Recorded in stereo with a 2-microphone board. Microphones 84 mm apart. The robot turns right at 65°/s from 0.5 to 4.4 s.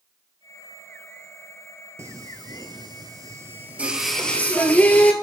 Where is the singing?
35° right (ahead or behind), 0.8 m; by 5.1 s 20° left (ahead or behind), 0.8 m.